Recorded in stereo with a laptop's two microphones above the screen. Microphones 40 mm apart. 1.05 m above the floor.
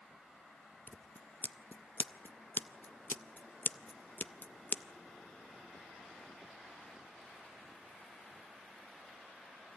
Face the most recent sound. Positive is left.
turn(degrees=50)  # may be behind; listen again after turning